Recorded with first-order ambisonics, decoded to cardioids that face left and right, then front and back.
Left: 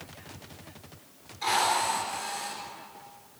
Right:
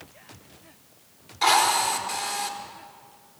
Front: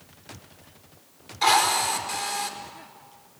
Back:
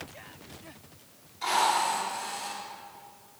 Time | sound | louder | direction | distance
1.4 | a drill | right 5 dB, front 5 dB | 55° right | 3.5 m